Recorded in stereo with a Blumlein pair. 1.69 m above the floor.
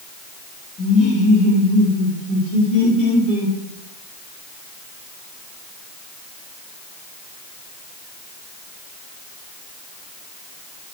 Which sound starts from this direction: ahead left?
Laughter, at 0.8 s.